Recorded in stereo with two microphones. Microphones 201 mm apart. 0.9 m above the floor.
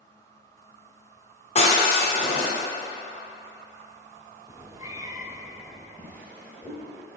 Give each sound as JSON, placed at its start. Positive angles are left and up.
{"t": 1.6, "sound": "breaking glass", "side_deg": 35, "distance_m": 1.7}
{"t": 4.5, "sound": "a cat meowing", "side_deg": -15, "distance_m": 0.5}
{"t": 6.0, "sound": "a drawer", "side_deg": 10, "distance_m": 1.5}